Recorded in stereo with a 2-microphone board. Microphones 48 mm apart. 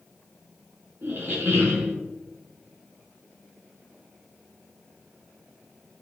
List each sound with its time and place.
1.0 s a squeak: 45° right (ahead or behind), 1.9 m